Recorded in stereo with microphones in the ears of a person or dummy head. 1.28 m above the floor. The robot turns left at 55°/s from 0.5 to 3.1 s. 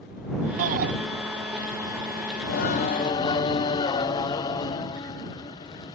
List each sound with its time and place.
0.6 s a shout: 40° right (ahead or behind); by 0.9 s 55° right (ahead or behind)
2.4 s singing: 60° left; by 6.0 s 20° left